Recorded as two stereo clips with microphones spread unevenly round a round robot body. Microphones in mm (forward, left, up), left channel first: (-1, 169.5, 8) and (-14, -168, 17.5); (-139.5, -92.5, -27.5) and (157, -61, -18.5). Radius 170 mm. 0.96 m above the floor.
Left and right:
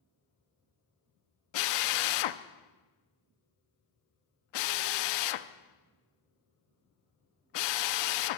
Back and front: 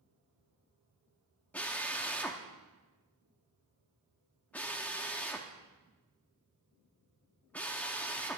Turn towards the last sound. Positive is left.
turn(degrees=100)